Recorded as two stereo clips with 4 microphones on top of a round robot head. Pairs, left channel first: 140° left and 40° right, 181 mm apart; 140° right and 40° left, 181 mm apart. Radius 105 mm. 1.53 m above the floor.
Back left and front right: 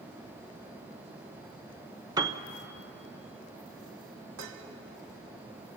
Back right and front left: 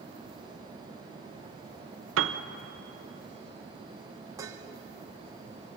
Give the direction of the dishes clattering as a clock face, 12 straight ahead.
1 o'clock.